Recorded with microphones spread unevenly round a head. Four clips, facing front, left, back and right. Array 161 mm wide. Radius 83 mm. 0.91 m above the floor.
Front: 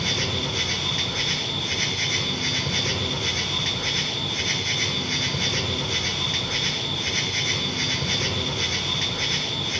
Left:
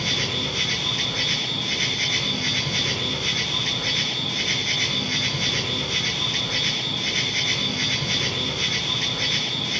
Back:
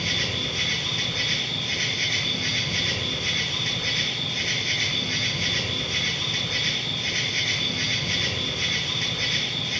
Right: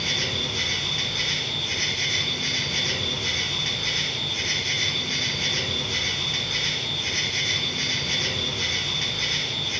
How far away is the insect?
About 6 m.